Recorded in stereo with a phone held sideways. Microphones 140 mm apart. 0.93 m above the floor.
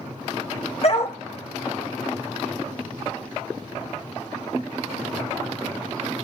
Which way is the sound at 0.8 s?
50° left (ahead or behind).